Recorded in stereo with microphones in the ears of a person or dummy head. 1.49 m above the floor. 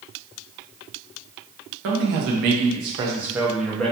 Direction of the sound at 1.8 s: 60° right (ahead or behind).